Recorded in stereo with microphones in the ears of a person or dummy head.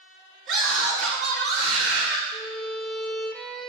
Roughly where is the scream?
Right.